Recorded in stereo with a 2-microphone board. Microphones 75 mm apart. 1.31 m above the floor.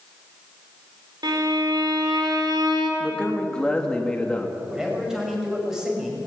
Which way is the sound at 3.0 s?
10° left (ahead or behind).